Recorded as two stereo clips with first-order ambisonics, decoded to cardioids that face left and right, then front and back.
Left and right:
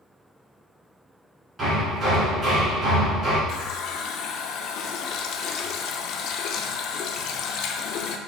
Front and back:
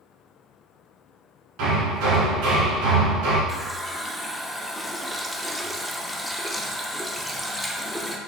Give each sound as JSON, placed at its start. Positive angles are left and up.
{"t": 1.6, "sound": "hammering", "azimuth_deg": -160, "distance_m": 2.5}
{"t": 3.5, "sound": "a running tap", "azimuth_deg": 90, "distance_m": 0.5}